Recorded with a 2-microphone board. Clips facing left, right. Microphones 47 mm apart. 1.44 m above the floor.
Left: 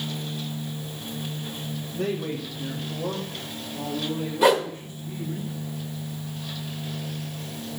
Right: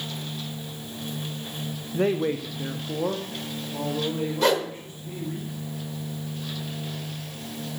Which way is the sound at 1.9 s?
30° right (ahead or behind).